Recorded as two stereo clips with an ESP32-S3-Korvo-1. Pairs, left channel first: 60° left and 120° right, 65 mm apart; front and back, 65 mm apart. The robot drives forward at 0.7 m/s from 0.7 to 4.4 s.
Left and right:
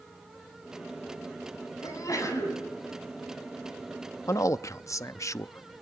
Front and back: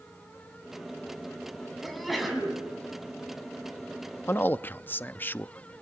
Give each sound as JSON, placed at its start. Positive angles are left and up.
{"t": 1.8, "sound": "a sneeze", "azimuth_deg": 90, "distance_m": 7.0}
{"t": 4.3, "sound": "a man speaking", "azimuth_deg": 40, "distance_m": 0.6}